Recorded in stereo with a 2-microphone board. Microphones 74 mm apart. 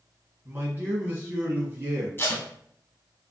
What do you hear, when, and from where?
0.5 s a man speaking: 25° right (ahead or behind), 1.3 m
2.2 s tape being pulled: 30° left (ahead or behind), 0.7 m